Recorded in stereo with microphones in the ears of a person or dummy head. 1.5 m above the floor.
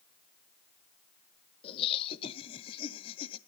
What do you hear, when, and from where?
1.6 s laughter: 30° left (ahead or behind), 1.3 m